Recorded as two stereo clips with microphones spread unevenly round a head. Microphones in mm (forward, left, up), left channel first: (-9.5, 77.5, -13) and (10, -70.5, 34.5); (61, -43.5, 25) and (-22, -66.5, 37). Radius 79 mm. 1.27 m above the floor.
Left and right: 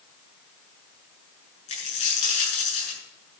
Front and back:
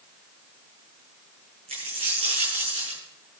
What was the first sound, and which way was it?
A dropped coin, 145° left.